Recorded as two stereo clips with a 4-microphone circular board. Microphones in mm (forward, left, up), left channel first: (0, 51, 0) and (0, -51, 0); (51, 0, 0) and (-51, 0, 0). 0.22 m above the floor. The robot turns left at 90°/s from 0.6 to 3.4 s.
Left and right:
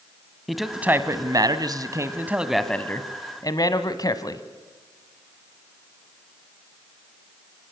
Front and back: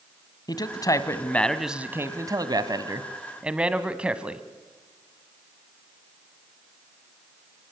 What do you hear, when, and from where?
0.5 s a man speaking: straight ahead, 1.3 m; by 4.5 s 105° left, 1.3 m